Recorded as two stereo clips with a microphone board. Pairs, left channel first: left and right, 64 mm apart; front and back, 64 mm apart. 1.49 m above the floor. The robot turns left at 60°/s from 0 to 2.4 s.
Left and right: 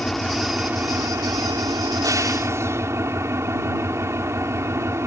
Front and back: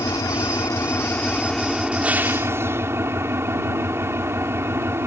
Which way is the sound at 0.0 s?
10° left.